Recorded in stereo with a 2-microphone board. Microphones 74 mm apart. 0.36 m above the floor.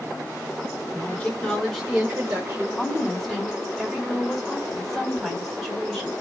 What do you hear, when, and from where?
0.9 s a woman speaking: 25° left (ahead or behind), 1.1 m; by 2.7 s 35° right (ahead or behind), 1.2 m
2.8 s a woman speaking: 5° left (ahead or behind), 1.7 m